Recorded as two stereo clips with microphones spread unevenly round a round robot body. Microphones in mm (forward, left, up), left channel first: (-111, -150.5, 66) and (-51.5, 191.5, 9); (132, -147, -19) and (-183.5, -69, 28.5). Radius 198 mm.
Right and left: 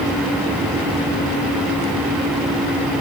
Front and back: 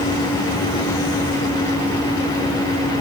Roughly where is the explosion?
No explosion in this recording.